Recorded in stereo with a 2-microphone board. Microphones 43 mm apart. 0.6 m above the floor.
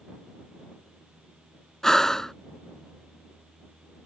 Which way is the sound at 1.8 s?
15° left (ahead or behind).